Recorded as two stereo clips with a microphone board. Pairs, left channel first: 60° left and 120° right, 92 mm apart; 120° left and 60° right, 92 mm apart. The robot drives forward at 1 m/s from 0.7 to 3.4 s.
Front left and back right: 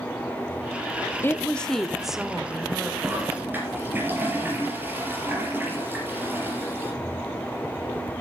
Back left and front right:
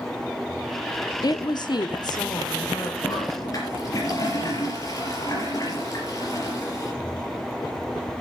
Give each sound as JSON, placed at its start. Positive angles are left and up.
{"t": 1.2, "sound": "a woman speaking", "azimuth_deg": 115, "distance_m": 0.8}
{"t": 3.0, "sound": "a toilet flushing", "azimuth_deg": 170, "distance_m": 4.0}